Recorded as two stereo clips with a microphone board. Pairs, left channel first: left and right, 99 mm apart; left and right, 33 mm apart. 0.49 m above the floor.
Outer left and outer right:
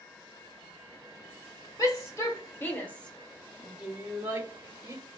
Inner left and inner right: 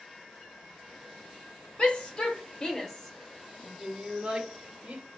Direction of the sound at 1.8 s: 40° left (ahead or behind).